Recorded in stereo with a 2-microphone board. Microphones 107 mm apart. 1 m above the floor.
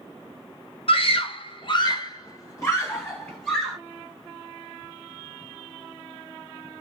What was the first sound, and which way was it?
A scream, 60° left (ahead or behind).